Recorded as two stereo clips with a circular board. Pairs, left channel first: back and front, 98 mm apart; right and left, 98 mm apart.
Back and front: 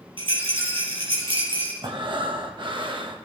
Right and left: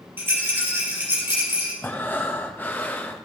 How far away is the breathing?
About 1.1 m.